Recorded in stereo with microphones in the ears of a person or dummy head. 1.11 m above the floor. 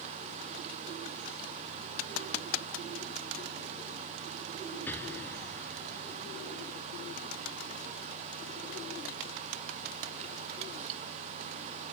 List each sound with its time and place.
4.9 s an explosion: 10° left (ahead or behind)